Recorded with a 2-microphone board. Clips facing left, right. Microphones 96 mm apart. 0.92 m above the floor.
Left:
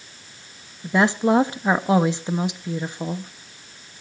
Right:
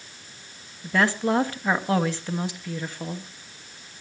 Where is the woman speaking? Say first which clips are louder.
Left 4 dB; 20° left (ahead or behind), 1.2 m.